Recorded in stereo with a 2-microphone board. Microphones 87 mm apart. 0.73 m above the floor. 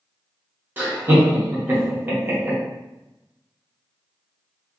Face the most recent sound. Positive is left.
turn(degrees=-25)  # may be behind; listen again after turning